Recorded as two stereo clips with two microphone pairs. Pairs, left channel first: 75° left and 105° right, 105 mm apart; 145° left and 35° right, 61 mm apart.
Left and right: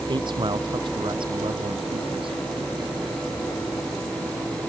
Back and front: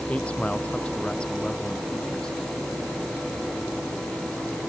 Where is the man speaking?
145° right; by 2.4 s 135° right.